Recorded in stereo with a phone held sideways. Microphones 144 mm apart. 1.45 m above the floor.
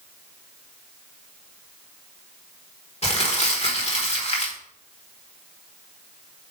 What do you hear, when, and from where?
3.0 s crumpling: 50° left (ahead or behind), 1.4 m